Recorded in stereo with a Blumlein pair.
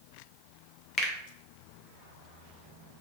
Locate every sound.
1.0 s a finger snap: 25° left, 0.6 m